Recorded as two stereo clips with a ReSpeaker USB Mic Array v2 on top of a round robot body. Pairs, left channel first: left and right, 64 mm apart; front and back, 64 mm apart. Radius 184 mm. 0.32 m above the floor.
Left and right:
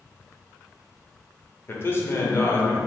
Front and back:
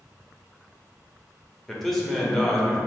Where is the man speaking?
85° left, 1.2 m.